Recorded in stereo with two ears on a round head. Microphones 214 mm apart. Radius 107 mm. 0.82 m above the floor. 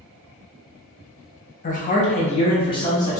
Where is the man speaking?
35° left (ahead or behind), 0.8 m; by 3.2 s 15° left (ahead or behind), 1.1 m.